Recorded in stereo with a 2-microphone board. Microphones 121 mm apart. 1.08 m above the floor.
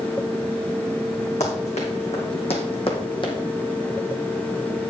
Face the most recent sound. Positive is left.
turn(degrees=40)  # may be behind; listen again after turning